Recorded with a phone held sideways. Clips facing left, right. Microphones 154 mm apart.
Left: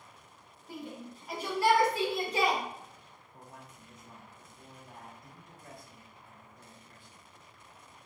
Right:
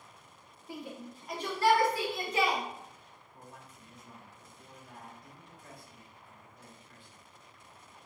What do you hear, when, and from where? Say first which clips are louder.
0.7 s a shout: even; 10° right (ahead or behind), 1.3 m; by 2.6 s 40° left (ahead or behind), 1.3 m
3.3 s a man speaking: left 1 dB; 40° left (ahead or behind), 1.5 m